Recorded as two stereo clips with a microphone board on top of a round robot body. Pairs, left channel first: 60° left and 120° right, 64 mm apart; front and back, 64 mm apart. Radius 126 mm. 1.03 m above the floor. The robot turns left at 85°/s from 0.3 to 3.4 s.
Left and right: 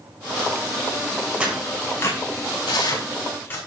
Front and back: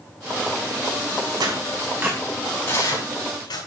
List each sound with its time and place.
1.4 s tearing paper: 170° left, 6.5 m; by 3.6 s straight ahead, 6.5 m